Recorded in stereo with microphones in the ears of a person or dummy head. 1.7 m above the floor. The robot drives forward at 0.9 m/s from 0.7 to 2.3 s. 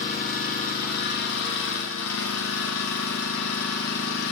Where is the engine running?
50° left (ahead or behind), 2 m; by 4.3 s 70° left (ahead or behind), 1.8 m.